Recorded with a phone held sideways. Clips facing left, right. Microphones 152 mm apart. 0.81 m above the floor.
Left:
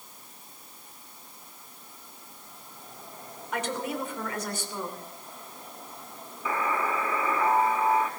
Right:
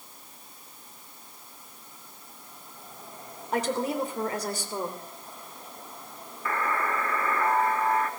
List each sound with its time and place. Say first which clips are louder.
3.5 s a woman speaking: right 4 dB; 35° right (ahead or behind), 2.5 m
6.5 s a buzzer: left 1 dB; 10° left (ahead or behind), 1.1 m